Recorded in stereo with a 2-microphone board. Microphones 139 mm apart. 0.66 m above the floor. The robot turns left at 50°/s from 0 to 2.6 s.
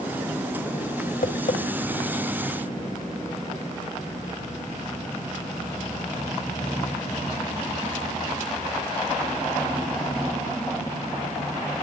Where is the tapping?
85° left, 1.3 m; by 1.6 s 65° left (ahead or behind), 1.3 m.